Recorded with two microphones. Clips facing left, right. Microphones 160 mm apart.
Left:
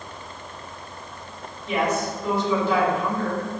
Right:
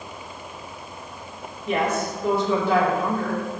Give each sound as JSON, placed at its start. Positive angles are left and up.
{"t": 1.7, "sound": "a woman speaking", "side_deg": -55, "distance_m": 4.0}